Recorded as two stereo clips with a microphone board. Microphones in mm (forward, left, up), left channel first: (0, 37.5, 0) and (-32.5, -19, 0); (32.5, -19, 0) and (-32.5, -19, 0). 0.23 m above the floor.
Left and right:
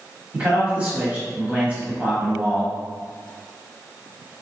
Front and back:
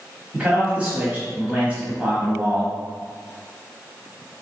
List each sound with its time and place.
0.3 s a man speaking: 140° right, 1.0 m